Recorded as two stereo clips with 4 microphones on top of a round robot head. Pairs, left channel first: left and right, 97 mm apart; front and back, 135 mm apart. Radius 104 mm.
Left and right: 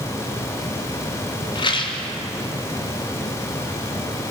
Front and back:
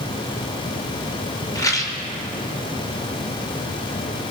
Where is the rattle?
65° left, 2.5 m.